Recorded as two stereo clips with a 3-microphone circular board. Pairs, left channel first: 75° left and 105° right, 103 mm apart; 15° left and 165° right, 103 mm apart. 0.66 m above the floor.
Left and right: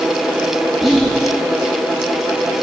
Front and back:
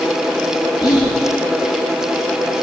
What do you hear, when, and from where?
0.8 s whispering: 15° right, 0.9 m